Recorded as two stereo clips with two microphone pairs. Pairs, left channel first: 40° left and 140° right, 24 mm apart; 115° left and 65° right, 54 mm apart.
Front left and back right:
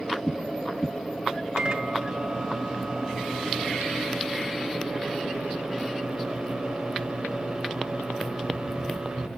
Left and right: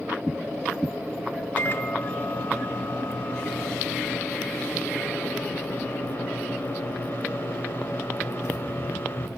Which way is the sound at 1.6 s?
160° left.